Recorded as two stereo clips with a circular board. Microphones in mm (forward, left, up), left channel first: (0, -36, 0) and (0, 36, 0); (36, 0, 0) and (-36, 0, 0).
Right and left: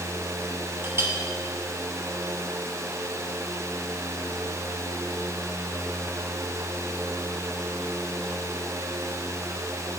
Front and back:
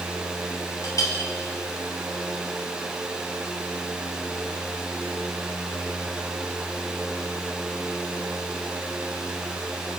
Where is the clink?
35° left, 1.2 m.